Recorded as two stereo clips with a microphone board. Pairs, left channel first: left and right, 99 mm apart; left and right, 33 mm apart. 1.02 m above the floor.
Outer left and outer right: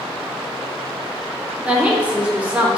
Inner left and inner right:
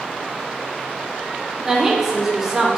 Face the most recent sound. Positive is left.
turn(degrees=-10)  # may be behind; listen again after turning